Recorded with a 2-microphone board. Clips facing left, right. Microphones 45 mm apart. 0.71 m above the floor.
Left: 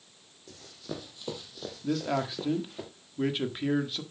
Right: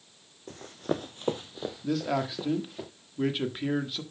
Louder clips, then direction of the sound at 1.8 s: Even; centre (ahead or behind).